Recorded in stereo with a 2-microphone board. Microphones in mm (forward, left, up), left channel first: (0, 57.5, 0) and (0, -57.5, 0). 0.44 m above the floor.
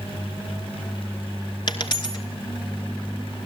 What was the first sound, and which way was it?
A dropped coin, 45° left (ahead or behind).